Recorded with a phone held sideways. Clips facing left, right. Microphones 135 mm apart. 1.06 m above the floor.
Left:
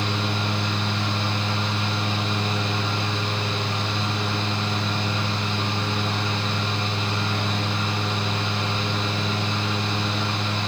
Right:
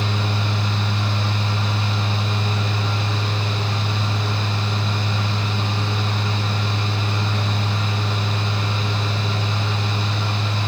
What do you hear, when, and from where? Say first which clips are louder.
0.0 s a fan: right 1 dB; 30° right (ahead or behind), 0.8 m